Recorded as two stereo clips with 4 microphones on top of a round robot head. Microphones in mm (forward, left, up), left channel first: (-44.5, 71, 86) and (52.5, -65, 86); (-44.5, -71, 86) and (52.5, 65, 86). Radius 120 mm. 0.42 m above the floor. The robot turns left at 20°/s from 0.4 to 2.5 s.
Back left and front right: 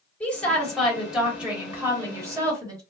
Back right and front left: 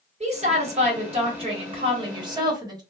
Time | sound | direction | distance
0.2 | a woman speaking | 45° left | 1.6 m